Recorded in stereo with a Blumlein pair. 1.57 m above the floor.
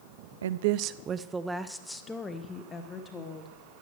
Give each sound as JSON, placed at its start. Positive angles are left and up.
{"t": 0.4, "sound": "a woman speaking", "azimuth_deg": -65, "distance_m": 0.6}